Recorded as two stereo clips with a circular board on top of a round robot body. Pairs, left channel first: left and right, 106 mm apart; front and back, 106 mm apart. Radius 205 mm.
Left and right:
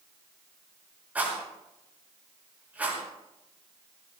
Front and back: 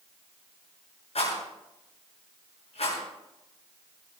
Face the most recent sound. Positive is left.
turn(degrees=-15)